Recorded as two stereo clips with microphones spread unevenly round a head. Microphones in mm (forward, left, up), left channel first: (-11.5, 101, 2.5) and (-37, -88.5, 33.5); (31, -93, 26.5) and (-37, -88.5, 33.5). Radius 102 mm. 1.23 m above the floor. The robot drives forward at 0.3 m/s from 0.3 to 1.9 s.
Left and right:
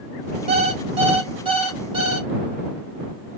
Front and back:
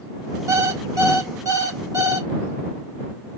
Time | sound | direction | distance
0.5 | an alarm clock | 150° right | 1.4 m